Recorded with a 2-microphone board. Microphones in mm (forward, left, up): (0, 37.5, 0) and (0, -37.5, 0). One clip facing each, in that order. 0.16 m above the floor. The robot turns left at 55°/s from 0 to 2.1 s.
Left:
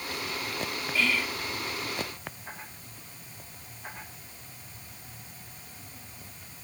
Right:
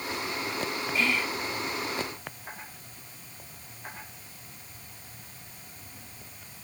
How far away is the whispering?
About 1.2 m.